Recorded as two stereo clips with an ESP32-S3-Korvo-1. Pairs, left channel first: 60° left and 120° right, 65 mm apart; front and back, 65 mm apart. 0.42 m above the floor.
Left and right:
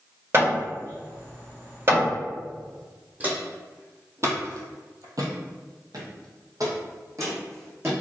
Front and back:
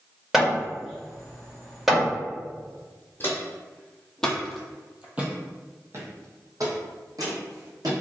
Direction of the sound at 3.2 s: 55° right.